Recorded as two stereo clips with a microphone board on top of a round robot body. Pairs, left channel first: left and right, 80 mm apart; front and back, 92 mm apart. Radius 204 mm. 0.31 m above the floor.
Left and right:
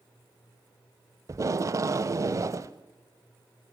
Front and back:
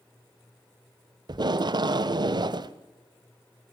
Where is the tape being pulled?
140° right, 0.6 m.